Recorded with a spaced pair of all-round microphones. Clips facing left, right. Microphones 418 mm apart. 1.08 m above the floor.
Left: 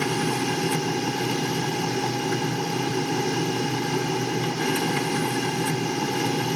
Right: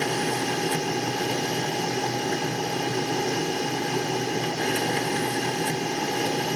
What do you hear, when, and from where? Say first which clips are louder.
0.0 s a machine running: left 2 dB; 20° left (ahead or behind)